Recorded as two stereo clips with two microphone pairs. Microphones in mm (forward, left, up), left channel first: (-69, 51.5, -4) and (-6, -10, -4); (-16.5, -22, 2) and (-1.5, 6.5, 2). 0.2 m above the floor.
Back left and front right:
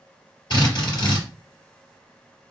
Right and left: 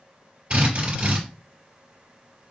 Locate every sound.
0.5 s a drill: 105° left, 3.5 m